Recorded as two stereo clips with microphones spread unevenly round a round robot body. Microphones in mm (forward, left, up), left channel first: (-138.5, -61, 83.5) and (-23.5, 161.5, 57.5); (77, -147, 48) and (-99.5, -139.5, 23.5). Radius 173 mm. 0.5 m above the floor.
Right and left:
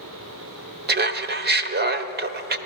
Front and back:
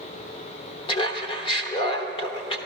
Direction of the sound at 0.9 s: 60° left.